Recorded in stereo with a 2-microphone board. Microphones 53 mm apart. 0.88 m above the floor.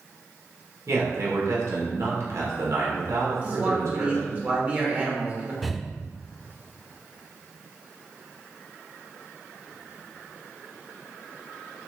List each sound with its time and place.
0.9 s a man speaking: 70° right (ahead or behind), 3 m
3.4 s a man speaking: 30° right (ahead or behind), 2.5 m
5.6 s breathing: centre (ahead or behind), 0.6 m